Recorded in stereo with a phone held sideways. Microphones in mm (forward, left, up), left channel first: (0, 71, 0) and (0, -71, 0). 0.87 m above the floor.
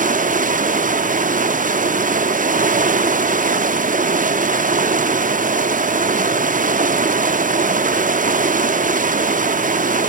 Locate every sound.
0.0 s running water: 70° right (ahead or behind), 0.7 m